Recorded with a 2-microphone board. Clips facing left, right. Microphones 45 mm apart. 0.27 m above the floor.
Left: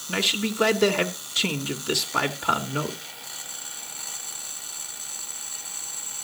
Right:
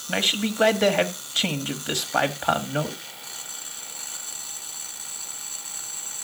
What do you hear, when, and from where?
0.1 s a man speaking: 40° right (ahead or behind), 1.3 m